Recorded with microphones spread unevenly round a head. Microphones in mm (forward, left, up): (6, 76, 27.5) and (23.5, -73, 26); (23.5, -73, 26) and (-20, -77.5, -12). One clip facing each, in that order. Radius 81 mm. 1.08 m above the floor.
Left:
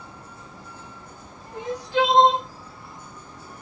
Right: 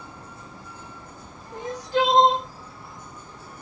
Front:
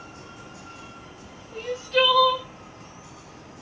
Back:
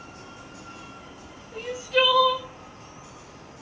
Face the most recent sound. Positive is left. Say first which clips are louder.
# left 1 dB, front 1 dB
turn(degrees=-125)